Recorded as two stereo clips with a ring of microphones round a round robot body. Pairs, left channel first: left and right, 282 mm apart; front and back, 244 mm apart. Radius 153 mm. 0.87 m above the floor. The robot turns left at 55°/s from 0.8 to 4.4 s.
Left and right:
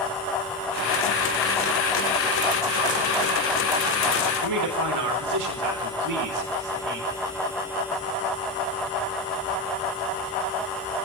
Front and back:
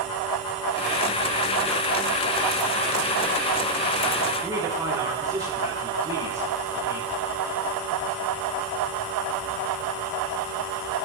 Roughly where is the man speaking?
Right.